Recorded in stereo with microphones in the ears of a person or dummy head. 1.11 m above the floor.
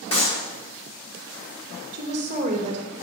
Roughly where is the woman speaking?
Right.